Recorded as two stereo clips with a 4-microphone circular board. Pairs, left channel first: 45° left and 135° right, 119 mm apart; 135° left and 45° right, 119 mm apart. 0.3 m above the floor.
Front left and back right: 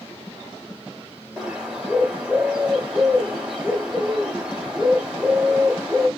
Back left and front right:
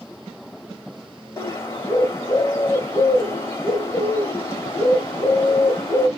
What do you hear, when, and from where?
1.4 s a bird: 150° left, 1.6 m